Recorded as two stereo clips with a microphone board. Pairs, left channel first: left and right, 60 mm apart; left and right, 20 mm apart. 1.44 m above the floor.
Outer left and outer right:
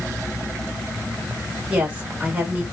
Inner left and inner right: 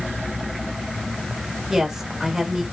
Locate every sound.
1.7 s a woman speaking: 20° right (ahead or behind), 3 m